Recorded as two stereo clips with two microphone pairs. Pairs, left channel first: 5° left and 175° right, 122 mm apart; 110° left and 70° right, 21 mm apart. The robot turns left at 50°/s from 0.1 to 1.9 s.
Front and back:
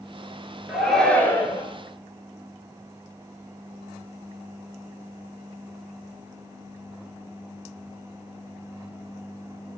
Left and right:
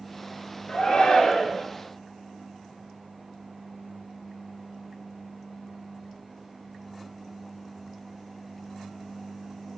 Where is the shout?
100° left, 1.5 m; by 1.6 s 50° left, 1.5 m.